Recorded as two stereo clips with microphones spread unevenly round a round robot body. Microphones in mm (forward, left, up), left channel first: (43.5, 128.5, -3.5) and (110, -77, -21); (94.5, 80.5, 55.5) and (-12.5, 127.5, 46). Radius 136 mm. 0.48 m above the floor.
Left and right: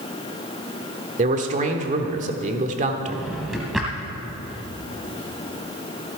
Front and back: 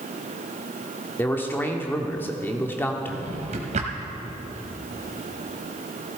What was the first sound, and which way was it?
A man speaking, 95° right.